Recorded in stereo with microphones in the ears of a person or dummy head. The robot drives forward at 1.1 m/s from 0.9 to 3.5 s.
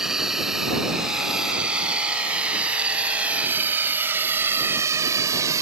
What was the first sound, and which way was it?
A drone, 5° right (ahead or behind).